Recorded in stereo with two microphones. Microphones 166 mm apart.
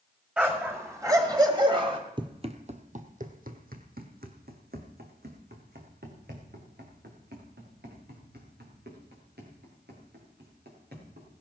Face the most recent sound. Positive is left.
turn(degrees=-85)